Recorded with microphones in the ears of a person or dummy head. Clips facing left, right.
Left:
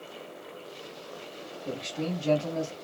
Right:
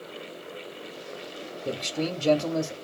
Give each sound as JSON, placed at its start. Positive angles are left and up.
{"t": 1.6, "sound": "a man speaking", "side_deg": -60, "distance_m": 0.6}